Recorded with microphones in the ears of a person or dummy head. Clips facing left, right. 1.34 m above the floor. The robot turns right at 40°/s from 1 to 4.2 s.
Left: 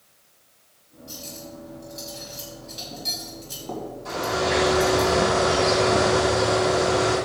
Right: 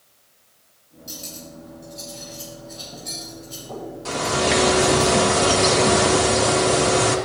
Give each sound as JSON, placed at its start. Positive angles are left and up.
{"t": 1.1, "sound": "cutlery clinking", "side_deg": -25, "distance_m": 5.5}
{"t": 4.0, "sound": "a bird", "side_deg": -70, "distance_m": 2.5}